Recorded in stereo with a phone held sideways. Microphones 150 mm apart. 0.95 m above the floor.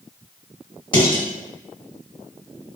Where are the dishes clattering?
30° left (ahead or behind), 1.5 m.